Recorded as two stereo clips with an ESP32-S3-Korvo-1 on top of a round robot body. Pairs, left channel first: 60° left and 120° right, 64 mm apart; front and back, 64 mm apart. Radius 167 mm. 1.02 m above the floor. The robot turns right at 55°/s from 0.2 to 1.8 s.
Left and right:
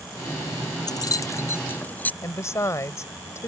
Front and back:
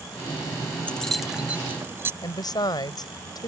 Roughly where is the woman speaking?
Ahead.